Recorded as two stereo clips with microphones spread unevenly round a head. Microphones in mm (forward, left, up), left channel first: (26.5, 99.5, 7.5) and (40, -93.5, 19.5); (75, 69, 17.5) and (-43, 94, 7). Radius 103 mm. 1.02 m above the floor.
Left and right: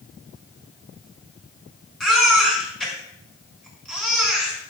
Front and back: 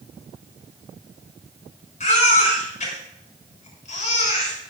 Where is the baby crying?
5° left, 5.5 m.